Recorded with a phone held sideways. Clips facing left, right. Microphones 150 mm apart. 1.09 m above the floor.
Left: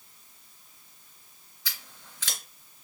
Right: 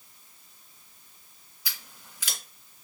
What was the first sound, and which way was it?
Scissors, 10° right (ahead or behind).